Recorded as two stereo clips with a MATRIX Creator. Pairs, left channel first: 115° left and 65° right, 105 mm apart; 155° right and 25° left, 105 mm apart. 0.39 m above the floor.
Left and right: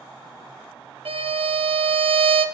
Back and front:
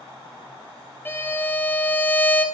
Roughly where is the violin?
Right.